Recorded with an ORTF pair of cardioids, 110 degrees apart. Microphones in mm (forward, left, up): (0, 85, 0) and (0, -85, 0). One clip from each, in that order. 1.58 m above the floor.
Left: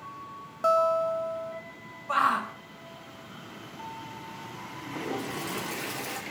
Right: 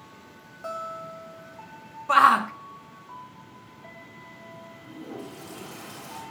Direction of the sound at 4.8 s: 60° left.